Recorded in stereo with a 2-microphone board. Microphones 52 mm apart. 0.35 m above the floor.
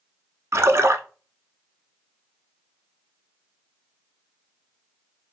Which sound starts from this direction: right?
A splash, at 0.5 s.